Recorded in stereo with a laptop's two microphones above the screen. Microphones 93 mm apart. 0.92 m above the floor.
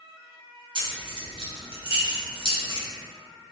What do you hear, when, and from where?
0.8 s keys jangling: 60° right (ahead or behind), 0.7 m